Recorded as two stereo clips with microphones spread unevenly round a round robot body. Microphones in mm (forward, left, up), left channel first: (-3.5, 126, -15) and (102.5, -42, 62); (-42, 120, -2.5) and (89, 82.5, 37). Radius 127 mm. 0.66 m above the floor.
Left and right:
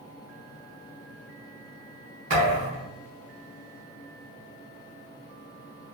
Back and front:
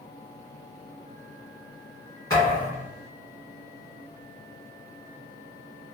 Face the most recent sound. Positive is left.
turn(degrees=-115)